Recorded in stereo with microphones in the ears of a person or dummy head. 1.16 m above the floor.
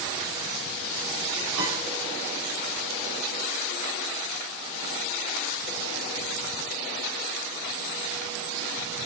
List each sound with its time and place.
1.6 s a piano: 75° right (ahead or behind), 2.5 m